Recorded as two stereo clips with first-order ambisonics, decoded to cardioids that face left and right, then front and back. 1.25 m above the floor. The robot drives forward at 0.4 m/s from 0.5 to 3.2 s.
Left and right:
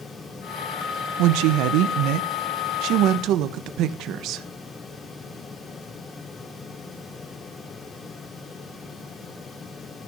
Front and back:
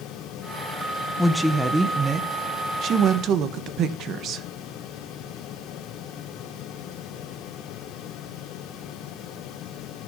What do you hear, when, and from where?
1.2 s a woman speaking: 90° right, 1.0 m; by 4.5 s 130° right, 1.3 m